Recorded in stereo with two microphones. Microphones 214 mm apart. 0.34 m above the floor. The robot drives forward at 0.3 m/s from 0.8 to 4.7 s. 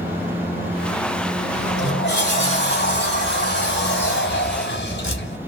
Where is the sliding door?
50° left (ahead or behind), 1.8 m.